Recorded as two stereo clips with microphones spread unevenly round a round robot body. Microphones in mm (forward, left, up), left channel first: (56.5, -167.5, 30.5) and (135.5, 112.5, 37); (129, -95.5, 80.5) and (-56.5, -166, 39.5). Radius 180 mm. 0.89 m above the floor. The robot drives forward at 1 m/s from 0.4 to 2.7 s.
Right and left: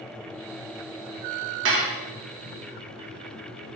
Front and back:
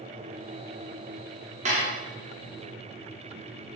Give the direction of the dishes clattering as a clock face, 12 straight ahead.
8 o'clock.